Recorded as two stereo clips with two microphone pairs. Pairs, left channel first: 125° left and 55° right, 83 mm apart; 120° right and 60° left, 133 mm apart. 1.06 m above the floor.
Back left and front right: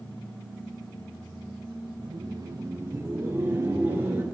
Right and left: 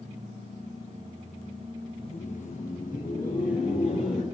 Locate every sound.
2.0 s laughter: 75° right, 0.5 m; by 4.2 s 120° right, 3 m